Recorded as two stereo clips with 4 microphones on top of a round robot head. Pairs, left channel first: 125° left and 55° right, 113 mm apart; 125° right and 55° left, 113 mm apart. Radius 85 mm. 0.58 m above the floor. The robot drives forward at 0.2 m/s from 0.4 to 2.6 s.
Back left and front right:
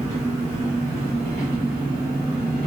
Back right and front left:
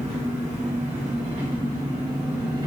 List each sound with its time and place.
0.0 s an engine running: 95° left, 1.4 m; by 2.7 s 115° left, 1.6 m